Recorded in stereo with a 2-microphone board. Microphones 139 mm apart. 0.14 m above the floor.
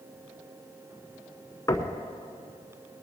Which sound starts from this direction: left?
Knocking, at 1.7 s.